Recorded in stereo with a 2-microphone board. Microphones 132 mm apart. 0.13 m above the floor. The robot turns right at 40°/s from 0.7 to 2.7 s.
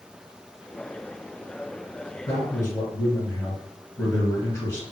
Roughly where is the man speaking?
Left.